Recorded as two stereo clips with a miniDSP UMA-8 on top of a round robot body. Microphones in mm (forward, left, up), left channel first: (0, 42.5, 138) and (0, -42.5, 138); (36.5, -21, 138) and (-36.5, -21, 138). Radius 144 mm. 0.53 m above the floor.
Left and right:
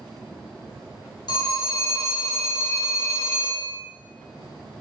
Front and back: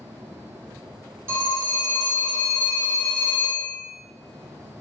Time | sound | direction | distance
1.3 | a phone ringing | 120° left | 0.9 m